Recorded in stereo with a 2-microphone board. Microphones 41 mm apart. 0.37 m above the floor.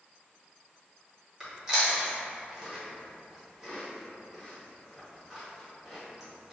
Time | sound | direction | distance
1.4 | chewing | 10° right (ahead or behind) | 1.4 m